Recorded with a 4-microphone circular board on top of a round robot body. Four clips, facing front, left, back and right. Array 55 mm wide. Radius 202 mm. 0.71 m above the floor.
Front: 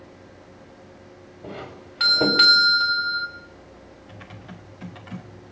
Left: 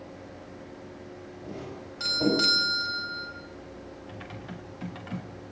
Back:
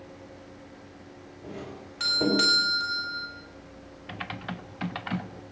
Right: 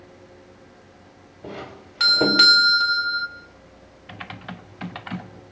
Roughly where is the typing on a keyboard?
Behind right.